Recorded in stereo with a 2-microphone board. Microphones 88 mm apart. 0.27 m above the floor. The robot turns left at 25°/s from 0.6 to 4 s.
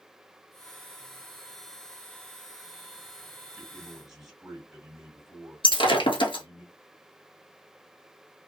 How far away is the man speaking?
About 1.9 m.